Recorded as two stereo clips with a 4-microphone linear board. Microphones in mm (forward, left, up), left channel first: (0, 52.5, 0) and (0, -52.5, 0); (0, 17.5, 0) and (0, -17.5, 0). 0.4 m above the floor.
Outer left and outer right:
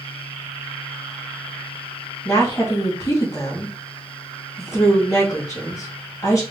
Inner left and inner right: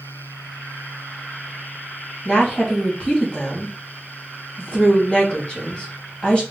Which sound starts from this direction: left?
A woman speaking, at 2.2 s.